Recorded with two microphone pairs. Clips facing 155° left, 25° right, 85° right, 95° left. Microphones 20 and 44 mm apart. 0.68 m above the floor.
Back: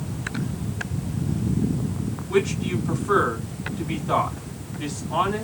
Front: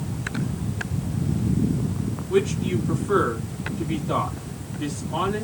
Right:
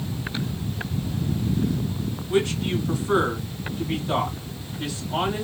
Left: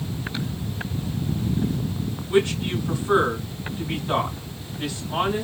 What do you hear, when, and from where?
2.3 s a man speaking: 160° left, 3 m